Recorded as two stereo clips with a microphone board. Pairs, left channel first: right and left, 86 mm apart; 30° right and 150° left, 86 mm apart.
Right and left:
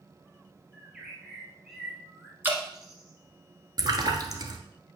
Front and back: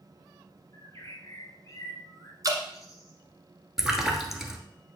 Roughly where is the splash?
Ahead left.